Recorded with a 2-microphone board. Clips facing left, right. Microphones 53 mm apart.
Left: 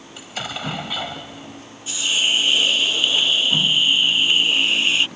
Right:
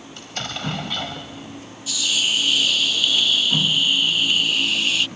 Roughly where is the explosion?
Centre.